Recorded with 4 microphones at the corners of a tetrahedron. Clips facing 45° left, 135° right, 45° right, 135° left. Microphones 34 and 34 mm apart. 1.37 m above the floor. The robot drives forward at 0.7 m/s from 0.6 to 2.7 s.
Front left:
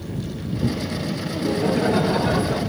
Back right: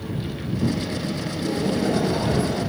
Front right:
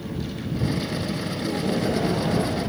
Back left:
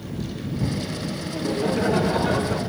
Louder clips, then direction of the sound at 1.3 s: Front left 4 dB, back left 3 dB; 90° left.